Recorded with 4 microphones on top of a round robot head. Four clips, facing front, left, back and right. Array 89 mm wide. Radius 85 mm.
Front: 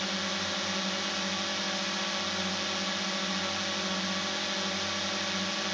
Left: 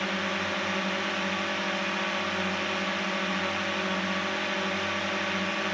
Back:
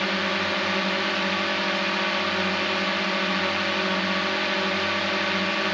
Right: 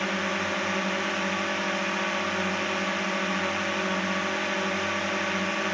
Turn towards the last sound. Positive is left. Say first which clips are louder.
# right 2 dB, back 9 dB
turn(degrees=-165)